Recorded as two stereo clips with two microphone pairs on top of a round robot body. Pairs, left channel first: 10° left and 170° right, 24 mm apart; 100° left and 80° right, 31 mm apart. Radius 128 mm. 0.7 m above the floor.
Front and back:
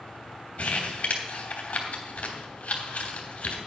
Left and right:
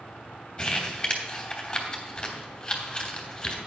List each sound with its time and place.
0.6 s crumpling: 45° left, 3 m